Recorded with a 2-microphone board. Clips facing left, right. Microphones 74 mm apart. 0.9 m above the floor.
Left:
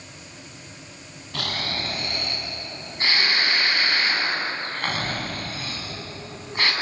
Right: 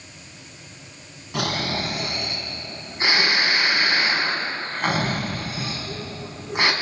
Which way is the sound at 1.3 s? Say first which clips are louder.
Right 5 dB; 15° right (ahead or behind).